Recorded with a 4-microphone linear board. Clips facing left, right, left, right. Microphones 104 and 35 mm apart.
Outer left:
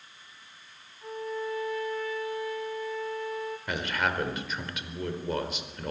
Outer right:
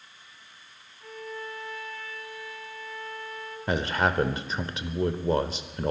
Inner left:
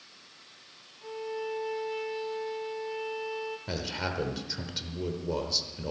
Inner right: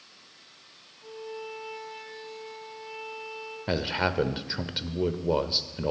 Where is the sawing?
I don't hear sawing.